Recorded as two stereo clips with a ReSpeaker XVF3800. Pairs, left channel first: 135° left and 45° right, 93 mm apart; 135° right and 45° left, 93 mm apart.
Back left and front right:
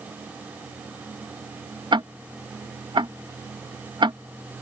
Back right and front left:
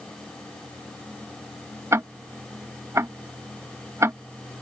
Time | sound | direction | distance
1.9 | ticking | 15° right | ?